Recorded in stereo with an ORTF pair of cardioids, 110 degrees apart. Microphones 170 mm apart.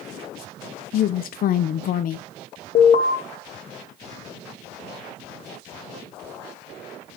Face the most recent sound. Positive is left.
turn(degrees=40)